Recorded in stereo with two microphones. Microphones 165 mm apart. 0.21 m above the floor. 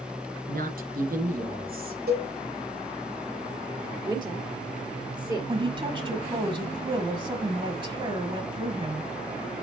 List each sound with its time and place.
0.5 s a woman speaking: 65° right (ahead or behind), 3 m
2.1 s a cowbell: 75° right (ahead or behind), 5 m
4.0 s a woman speaking: 25° right (ahead or behind), 4 m
5.5 s a woman speaking: 30° right (ahead or behind), 1.2 m